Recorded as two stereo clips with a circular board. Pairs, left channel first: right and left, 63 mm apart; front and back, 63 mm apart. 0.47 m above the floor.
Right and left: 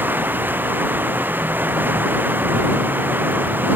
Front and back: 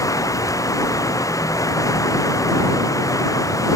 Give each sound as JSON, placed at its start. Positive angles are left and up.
{"t": 0.0, "sound": "running water", "azimuth_deg": 30}